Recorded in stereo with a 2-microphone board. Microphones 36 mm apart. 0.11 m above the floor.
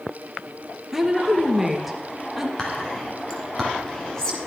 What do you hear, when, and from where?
0.9 s a woman speaking: 10° right (ahead or behind), 2 m
2.6 s whispering: 15° left (ahead or behind), 1.9 m